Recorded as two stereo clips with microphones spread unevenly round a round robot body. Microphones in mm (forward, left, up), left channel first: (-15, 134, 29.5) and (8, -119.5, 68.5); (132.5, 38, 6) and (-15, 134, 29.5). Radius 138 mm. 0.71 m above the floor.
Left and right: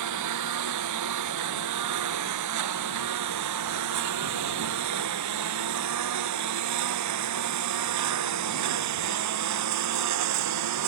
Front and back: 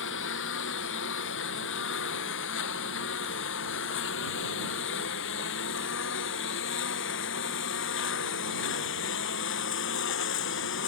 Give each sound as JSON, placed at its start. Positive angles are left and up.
{"t": 0.0, "sound": "a lawn mower", "azimuth_deg": -65}